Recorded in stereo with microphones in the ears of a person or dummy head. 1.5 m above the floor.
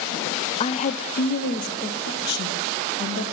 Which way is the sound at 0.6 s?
30° left (ahead or behind).